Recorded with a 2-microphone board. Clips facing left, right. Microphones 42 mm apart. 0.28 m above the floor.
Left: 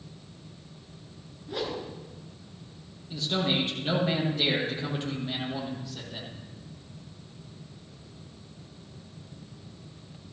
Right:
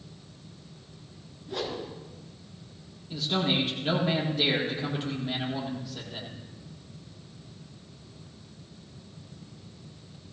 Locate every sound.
1.5 s a whoosh: 5° left (ahead or behind), 3.5 m
3.1 s a man speaking: 5° right (ahead or behind), 7 m